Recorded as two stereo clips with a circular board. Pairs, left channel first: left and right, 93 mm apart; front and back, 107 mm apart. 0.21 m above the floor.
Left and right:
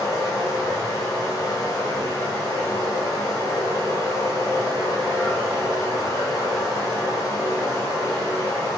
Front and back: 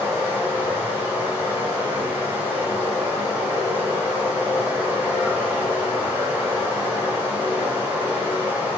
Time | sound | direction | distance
0.0 | running water | 115° left | 1.5 m